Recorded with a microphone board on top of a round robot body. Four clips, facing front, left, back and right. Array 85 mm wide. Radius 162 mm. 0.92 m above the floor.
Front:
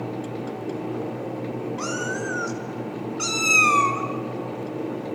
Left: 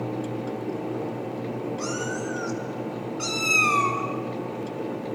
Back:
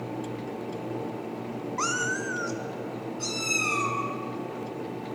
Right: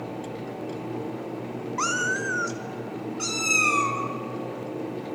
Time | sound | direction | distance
1.8 | a cat meowing | 120° right | 0.7 m